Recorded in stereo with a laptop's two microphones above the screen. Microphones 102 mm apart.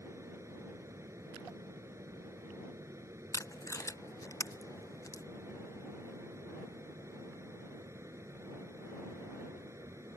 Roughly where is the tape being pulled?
Left.